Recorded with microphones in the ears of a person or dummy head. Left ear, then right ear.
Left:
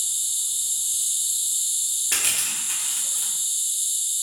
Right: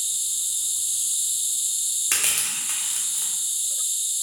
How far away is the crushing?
About 0.8 m.